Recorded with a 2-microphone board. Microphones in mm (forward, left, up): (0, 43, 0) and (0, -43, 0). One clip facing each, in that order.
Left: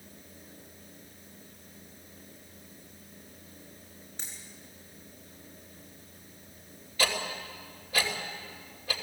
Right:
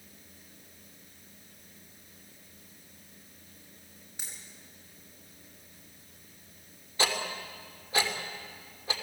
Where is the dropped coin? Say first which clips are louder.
Even; 10° right (ahead or behind), 7 m.